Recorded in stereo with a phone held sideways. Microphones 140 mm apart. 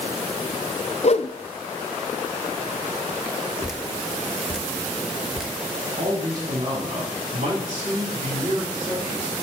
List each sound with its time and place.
1.0 s a whoosh: 50° left (ahead or behind), 0.5 m
3.6 s dripping: 5° right (ahead or behind), 1.0 m
6.0 s a man speaking: 75° right (ahead or behind), 3.5 m